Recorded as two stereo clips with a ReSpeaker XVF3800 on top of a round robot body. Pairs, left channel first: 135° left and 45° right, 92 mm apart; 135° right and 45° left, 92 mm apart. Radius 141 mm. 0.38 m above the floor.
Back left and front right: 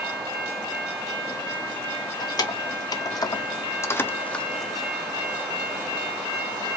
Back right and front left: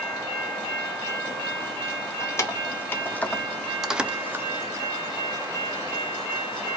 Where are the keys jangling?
170° left, 1.3 m; by 6.8 s 15° left, 1.6 m.